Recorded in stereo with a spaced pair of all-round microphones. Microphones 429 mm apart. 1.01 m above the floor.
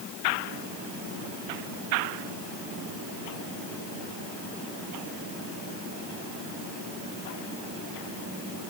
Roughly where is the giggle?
I don't hear a giggle.